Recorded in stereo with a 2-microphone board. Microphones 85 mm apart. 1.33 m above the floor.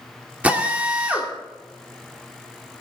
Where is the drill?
15° right (ahead or behind), 2 m.